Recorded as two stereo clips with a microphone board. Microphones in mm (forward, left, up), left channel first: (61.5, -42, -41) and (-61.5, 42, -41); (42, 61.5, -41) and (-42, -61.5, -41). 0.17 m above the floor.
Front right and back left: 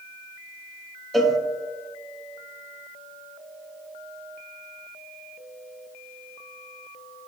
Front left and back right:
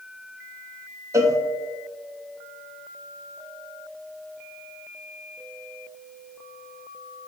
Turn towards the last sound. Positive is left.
turn(degrees=-125)